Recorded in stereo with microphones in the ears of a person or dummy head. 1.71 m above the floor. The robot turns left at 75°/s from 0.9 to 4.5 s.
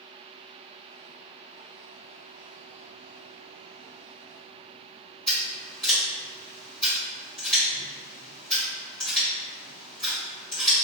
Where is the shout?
I don't hear a shout.